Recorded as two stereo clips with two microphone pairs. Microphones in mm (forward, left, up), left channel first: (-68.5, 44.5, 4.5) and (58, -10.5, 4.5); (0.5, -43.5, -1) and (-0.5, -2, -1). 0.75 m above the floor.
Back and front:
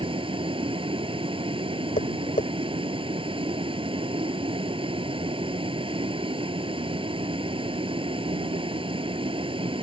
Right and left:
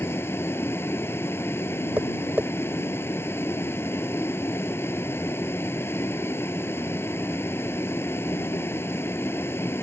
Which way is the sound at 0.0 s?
75° right.